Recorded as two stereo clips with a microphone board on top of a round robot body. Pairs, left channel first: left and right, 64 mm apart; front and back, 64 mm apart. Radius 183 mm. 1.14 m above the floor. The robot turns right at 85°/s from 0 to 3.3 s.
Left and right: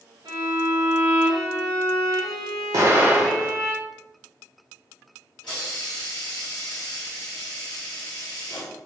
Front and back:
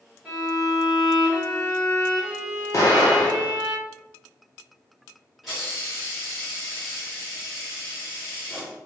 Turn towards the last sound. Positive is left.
turn(degrees=90)